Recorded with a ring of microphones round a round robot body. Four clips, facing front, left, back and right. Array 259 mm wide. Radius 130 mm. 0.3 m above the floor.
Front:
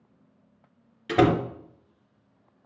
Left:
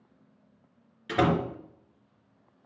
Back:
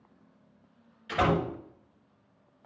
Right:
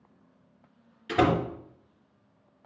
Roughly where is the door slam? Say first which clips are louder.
Right 1 dB, front 6 dB; ahead.